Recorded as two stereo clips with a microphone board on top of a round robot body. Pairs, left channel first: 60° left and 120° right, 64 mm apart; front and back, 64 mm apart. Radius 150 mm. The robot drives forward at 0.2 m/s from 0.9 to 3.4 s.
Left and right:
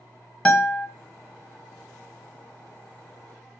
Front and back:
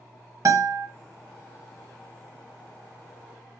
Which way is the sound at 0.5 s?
135° left.